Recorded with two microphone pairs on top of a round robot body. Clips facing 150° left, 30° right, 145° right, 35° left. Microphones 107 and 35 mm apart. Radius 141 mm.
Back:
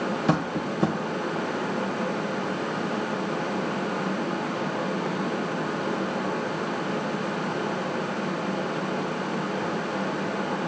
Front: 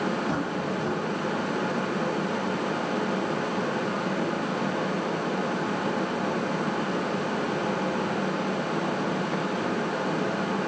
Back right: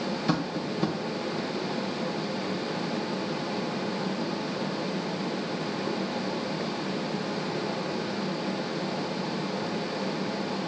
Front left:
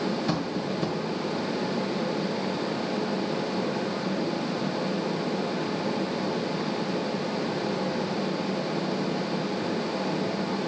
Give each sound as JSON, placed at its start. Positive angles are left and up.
{"t": 0.3, "sound": "tapping", "azimuth_deg": 130, "distance_m": 1.3}